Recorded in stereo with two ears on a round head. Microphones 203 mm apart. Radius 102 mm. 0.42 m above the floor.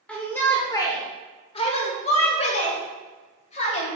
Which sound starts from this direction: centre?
A shout, at 0.1 s.